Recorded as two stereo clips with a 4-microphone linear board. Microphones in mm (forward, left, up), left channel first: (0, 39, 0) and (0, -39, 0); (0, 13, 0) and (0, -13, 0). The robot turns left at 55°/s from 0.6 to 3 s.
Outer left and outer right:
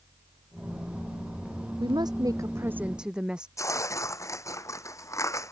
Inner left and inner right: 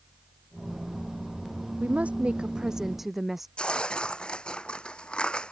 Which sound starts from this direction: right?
A woman speaking, at 1.8 s.